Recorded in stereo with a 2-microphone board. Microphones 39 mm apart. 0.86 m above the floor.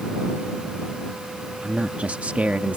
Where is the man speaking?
35° right (ahead or behind).